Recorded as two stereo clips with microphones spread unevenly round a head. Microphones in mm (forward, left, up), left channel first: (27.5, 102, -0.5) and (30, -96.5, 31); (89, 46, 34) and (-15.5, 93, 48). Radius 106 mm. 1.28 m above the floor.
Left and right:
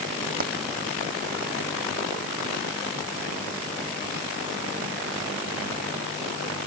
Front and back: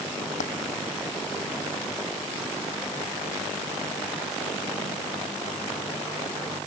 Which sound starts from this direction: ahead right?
A dropped coin, at 0.4 s.